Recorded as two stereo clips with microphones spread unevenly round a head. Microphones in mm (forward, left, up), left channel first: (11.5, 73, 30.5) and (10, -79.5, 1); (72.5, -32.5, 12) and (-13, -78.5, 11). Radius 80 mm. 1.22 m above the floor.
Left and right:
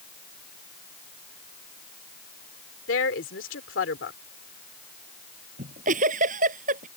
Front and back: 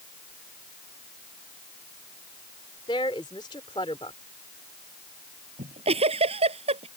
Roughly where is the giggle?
Behind right.